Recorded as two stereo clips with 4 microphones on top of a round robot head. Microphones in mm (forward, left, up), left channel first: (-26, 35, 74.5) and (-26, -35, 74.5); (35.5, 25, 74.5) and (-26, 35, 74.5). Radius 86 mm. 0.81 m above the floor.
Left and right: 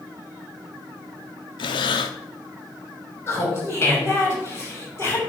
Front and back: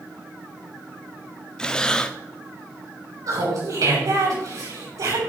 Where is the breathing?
65° left, 0.5 m.